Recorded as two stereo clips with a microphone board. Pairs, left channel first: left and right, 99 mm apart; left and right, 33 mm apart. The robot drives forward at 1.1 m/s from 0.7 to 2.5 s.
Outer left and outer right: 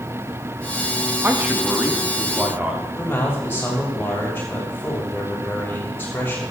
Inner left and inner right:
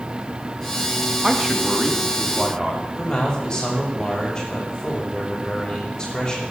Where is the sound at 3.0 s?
20° left (ahead or behind), 6.5 m.